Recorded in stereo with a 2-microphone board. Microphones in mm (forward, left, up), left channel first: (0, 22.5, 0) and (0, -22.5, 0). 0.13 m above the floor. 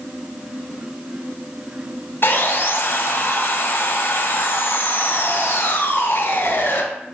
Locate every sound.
2.2 s sawing: 55° left (ahead or behind), 0.7 m